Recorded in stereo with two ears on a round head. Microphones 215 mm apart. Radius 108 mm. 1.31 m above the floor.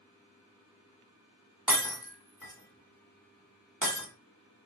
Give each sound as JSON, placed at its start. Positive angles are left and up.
{"t": 1.7, "sound": "breaking glass", "side_deg": -5, "distance_m": 1.5}